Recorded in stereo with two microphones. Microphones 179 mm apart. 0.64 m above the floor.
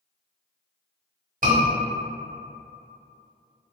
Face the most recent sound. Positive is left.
turn(degrees=-50)  # may be behind; listen again after turning